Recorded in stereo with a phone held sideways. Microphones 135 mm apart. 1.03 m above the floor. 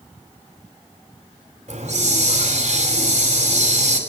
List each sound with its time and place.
1.7 s a hiss: 60° right (ahead or behind), 5 m